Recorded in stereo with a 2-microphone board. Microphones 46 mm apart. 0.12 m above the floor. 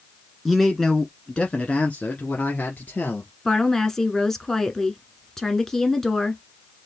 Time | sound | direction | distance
0.5 | a man speaking | centre (ahead or behind) | 1.3 m
3.5 | a woman speaking | 10° left (ahead or behind) | 1.1 m